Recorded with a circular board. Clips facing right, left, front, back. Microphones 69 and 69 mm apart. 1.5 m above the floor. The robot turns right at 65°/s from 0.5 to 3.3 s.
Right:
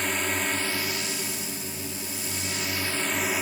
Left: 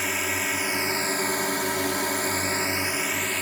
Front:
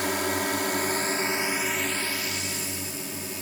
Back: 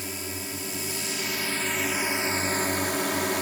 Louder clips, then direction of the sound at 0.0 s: Even, front 10 dB; 5° left.